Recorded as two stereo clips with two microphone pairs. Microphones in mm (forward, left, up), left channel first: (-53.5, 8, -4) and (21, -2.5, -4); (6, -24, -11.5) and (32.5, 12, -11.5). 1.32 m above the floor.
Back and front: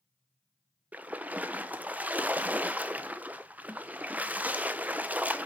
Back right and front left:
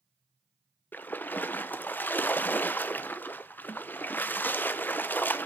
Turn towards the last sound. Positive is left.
turn(degrees=-80)